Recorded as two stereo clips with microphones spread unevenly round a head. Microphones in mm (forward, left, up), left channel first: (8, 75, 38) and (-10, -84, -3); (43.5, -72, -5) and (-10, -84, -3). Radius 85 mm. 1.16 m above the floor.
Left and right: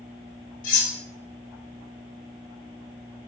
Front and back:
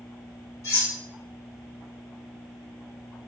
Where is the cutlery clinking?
55° left, 1.1 m.